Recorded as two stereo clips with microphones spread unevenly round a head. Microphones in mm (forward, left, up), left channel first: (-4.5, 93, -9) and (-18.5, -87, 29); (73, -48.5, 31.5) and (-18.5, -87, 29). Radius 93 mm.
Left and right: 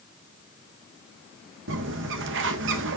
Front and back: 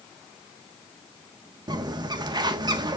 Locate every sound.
1.7 s a bird: 115° right, 1.5 m